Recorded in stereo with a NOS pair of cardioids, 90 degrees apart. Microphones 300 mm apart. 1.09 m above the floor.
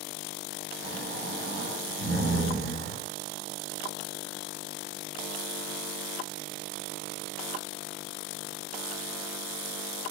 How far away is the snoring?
About 1.1 m.